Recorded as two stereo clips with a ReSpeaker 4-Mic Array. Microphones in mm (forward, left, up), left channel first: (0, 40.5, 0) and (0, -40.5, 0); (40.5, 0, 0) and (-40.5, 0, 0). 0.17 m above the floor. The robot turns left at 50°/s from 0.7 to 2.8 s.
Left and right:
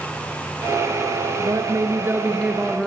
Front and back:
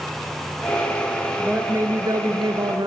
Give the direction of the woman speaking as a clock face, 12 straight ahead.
4 o'clock.